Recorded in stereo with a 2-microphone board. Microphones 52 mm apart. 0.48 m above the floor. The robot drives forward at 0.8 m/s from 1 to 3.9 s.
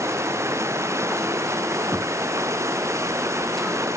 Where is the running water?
70° right (ahead or behind); by 4.0 s 75° right (ahead or behind).